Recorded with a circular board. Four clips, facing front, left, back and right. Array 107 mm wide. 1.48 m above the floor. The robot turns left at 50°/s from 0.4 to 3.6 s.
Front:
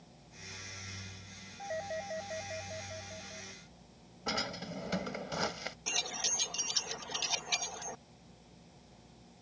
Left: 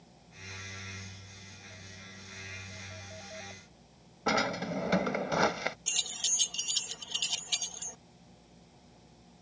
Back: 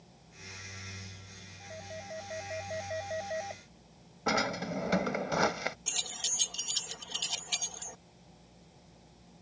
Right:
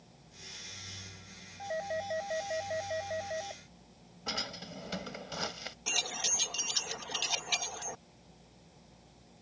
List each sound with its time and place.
1.6 s a doorbell: 55° right; by 3.6 s 155° right
4.3 s a drawer: 125° left
5.9 s keys jangling: 60° right